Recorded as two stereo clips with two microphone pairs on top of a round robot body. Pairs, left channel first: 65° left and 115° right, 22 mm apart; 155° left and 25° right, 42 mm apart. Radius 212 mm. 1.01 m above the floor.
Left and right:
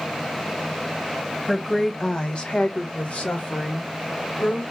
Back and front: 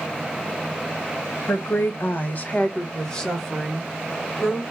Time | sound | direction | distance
1.5 | a woman speaking | 140° left | 0.9 m